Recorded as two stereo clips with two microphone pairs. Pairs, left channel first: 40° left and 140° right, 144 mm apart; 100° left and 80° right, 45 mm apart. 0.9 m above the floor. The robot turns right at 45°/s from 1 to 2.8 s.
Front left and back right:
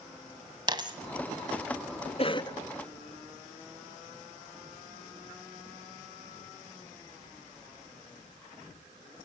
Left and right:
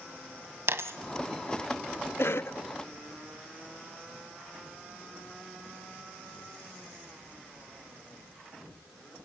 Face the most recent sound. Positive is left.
turn(degrees=110)